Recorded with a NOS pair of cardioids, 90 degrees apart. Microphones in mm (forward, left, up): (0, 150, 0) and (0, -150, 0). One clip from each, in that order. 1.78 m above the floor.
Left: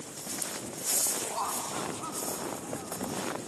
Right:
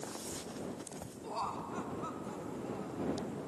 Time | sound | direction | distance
1.2 | laughter | 35° left | ?